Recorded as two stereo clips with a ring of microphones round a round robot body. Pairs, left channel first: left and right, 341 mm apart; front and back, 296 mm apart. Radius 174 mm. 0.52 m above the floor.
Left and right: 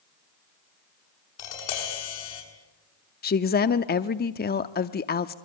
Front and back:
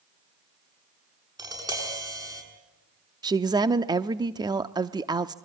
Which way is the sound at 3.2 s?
115° left.